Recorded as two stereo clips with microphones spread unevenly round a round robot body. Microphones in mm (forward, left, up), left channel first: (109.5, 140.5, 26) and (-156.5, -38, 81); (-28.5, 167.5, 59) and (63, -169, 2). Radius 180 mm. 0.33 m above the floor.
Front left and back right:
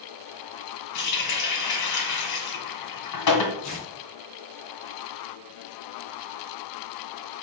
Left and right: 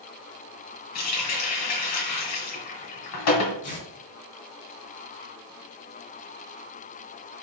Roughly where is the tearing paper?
Ahead left.